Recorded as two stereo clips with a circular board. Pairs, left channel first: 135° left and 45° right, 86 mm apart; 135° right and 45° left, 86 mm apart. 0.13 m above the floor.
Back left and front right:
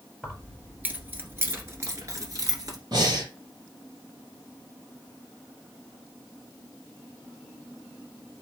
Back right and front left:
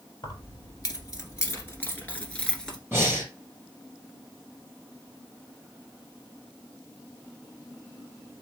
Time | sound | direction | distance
0.2 | keys jangling | 120° right | 1.6 m
2.9 | breathing | 20° right | 3.5 m